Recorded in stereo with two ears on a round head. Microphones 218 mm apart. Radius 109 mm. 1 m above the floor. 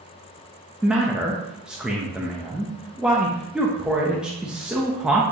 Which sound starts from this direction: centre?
A man speaking, at 0.8 s.